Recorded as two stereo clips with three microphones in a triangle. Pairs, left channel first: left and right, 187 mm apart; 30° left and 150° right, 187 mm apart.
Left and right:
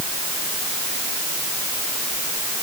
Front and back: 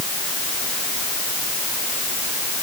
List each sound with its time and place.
Only background noise.